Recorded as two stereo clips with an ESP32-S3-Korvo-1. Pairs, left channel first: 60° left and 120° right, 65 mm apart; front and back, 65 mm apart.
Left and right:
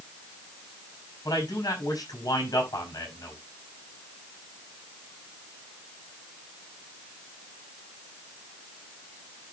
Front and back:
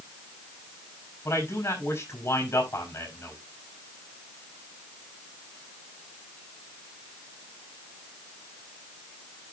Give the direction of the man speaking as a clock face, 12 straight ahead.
11 o'clock.